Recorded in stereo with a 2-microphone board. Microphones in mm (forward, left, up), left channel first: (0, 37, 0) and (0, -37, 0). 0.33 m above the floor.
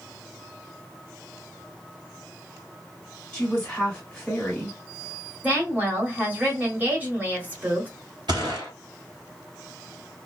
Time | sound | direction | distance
3.3 | a woman speaking | 10° left (ahead or behind) | 1.4 m
5.4 | a woman speaking | 20° right (ahead or behind) | 1.3 m
8.3 | a gunshot | 80° right | 1.5 m